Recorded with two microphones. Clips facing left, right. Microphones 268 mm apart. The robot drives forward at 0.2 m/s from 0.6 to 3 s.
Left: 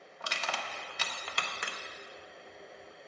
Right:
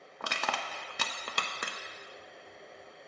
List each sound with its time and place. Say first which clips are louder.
0.2 s crushing: right 3 dB; 60° right (ahead or behind), 0.6 m; by 1.8 s 45° right (ahead or behind), 0.7 m